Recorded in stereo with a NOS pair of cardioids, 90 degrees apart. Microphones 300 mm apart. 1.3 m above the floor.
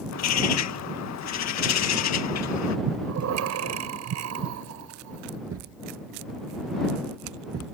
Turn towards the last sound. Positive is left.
turn(degrees=-55)